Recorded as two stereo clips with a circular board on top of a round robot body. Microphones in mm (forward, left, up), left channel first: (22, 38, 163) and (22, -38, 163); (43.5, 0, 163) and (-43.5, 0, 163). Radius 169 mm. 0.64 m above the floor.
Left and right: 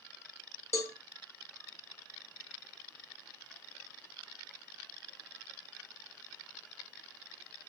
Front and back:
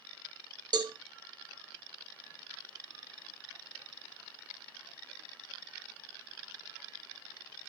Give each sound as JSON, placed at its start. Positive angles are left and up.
{"t": 0.7, "sound": "a cowbell", "azimuth_deg": 140, "distance_m": 1.2}